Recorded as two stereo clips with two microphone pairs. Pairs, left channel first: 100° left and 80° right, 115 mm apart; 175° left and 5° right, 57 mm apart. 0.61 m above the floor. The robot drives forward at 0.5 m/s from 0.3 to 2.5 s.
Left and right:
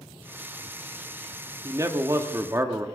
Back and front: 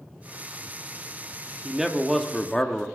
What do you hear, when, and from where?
1.6 s a man speaking: 75° right, 1.0 m; by 2.9 s 115° right, 1.0 m